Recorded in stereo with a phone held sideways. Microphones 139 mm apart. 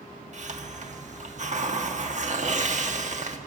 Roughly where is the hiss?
Right.